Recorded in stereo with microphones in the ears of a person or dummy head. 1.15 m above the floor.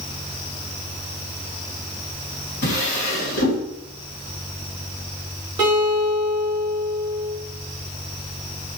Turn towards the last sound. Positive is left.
turn(degrees=-20)  # may be behind; listen again after turning